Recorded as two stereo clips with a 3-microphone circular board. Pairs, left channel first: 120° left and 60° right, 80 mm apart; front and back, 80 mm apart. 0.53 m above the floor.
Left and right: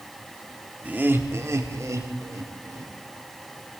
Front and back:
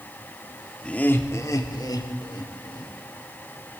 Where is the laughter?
50° right, 1.1 m; by 2.9 s 15° right, 2.5 m.